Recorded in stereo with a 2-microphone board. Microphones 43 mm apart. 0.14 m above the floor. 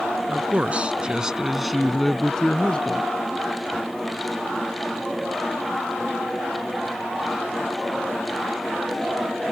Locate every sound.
0.3 s a man speaking: 35° right (ahead or behind); by 3.1 s 25° left (ahead or behind)